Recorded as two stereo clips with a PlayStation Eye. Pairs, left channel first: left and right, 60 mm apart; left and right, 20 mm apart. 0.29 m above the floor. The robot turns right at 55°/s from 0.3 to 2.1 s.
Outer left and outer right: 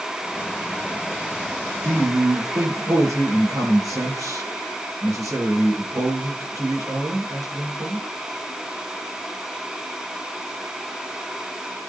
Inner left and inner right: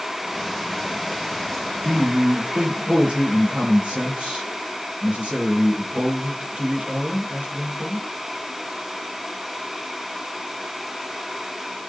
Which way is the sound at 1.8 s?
50° right (ahead or behind).